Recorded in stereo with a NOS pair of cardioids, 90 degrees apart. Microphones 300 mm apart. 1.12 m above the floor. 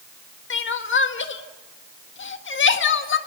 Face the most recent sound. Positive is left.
turn(degrees=40)